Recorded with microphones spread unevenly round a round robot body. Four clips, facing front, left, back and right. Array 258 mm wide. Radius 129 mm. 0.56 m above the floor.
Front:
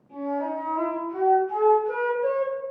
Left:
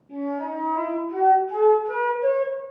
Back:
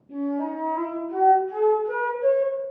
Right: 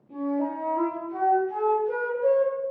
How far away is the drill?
I don't hear a drill.